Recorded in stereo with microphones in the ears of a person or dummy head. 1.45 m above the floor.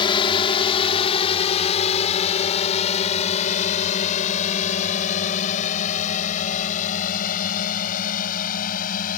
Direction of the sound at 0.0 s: 30° left (ahead or behind).